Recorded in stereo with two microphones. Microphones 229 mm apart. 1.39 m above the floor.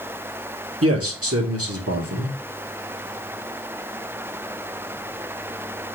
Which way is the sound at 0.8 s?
80° right.